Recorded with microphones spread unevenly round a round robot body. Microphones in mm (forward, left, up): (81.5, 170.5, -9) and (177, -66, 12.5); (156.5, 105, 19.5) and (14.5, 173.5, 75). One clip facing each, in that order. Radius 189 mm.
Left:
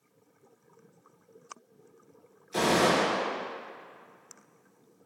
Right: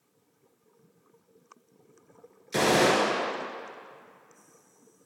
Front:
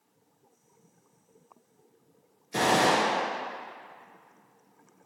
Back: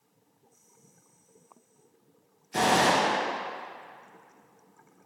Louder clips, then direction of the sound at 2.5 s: Right 2 dB, even; 105° right.